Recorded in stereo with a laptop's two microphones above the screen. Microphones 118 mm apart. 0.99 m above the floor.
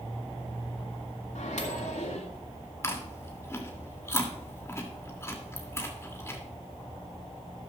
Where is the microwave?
80° left, 2 m.